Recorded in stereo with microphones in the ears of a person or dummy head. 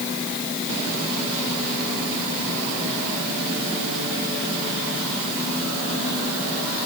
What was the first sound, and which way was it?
Only background noise.